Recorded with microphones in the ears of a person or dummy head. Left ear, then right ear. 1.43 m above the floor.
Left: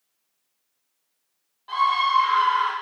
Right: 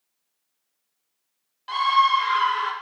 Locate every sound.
1.7 s a scream: 75° right (ahead or behind), 1.4 m; by 2.7 s 60° right (ahead or behind), 2.5 m